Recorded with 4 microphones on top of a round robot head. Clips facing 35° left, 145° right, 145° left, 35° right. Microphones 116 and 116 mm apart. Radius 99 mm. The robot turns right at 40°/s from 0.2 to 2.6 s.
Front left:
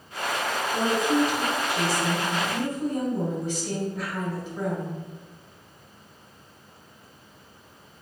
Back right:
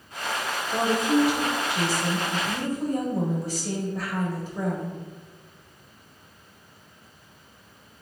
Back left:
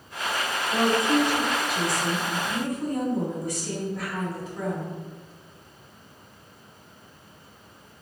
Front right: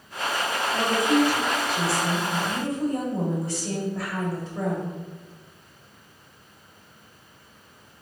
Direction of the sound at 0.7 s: 170° right.